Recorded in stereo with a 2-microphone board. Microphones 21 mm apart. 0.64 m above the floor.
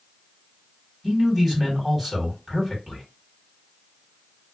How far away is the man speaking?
About 1.8 m.